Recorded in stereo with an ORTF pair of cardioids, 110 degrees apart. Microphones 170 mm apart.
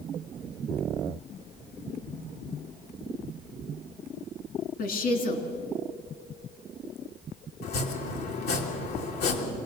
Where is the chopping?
70° left, 3 m.